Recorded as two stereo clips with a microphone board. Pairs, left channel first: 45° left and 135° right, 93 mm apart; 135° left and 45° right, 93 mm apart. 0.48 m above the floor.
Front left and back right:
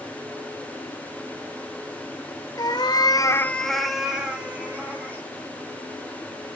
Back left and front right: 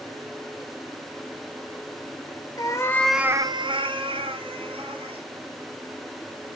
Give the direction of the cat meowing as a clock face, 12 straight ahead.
9 o'clock.